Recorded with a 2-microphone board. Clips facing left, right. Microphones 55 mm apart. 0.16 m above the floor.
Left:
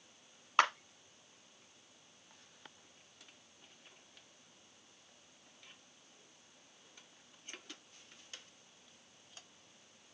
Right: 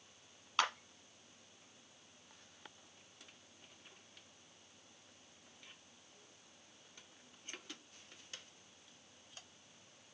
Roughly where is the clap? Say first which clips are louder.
Left 6 dB; left.